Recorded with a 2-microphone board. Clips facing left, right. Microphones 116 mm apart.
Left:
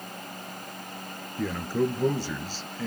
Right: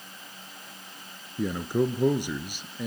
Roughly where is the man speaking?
Centre.